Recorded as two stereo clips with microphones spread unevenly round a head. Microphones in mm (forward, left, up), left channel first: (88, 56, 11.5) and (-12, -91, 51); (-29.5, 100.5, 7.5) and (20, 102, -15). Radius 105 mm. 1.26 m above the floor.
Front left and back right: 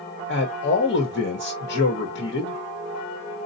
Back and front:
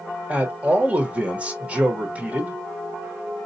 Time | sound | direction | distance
0.3 | a man speaking | 55° left | 1.3 m